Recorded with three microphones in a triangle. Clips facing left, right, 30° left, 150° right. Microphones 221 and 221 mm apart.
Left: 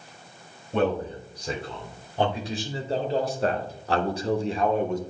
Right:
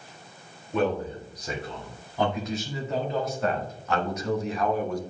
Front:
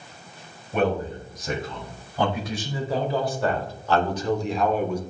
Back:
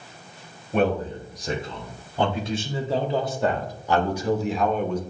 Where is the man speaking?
150° left, 3 m; by 5.0 s 85° left, 0.8 m.